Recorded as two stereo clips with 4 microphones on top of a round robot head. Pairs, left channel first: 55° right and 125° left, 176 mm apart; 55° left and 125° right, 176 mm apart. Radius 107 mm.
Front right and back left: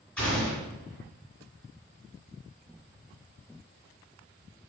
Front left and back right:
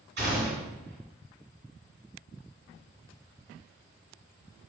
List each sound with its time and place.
0.2 s a gunshot: 145° right, 1.7 m